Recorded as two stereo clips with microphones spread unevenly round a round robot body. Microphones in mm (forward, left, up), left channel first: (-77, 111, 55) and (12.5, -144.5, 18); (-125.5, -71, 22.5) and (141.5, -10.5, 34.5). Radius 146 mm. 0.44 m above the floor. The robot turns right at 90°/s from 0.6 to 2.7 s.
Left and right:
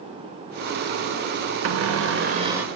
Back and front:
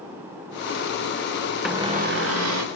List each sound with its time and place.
1.6 s a cupboard door: 75° right, 1.2 m; by 2.7 s 15° left, 1.2 m